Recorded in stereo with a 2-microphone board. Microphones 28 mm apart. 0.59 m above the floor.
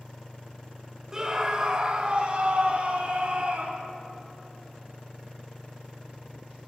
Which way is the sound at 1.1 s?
25° right (ahead or behind).